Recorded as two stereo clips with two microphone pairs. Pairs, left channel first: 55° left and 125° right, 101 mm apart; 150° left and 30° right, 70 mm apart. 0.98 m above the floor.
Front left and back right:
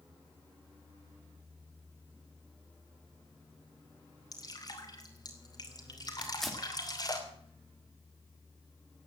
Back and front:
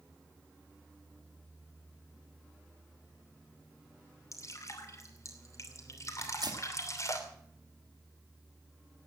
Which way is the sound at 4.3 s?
105° left.